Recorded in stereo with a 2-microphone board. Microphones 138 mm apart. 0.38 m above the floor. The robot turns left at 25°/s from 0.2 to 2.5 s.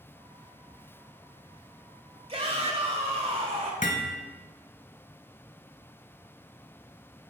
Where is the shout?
45° right (ahead or behind), 1.8 m.